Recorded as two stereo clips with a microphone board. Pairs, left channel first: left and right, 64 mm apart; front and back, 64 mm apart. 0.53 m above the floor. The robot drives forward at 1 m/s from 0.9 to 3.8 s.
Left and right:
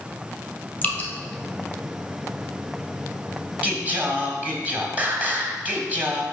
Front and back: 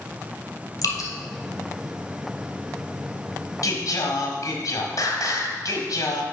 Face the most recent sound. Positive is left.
turn(degrees=-25)